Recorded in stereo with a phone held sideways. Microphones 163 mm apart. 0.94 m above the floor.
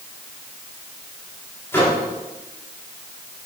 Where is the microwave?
15° left (ahead or behind), 2 m.